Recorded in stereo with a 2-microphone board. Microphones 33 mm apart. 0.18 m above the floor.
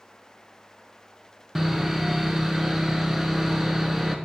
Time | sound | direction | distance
1.6 | sawing | 10° right (ahead or behind) | 0.6 m